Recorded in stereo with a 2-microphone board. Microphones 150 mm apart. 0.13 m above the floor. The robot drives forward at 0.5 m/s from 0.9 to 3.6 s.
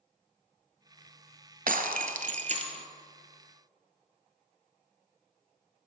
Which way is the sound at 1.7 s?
65° right (ahead or behind).